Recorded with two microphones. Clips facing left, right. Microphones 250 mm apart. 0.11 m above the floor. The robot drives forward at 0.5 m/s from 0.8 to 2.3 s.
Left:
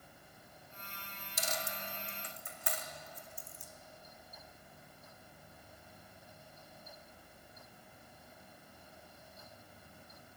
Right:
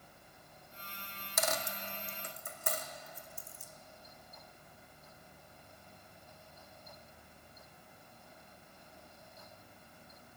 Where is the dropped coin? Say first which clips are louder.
Right 5 dB; 80° right, 0.6 m; by 3.7 s 45° right (ahead or behind), 0.8 m.